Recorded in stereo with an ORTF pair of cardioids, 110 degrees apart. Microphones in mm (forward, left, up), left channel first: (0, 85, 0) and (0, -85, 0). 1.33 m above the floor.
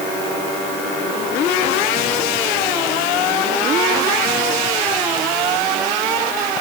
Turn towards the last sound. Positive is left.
No sound to turn to.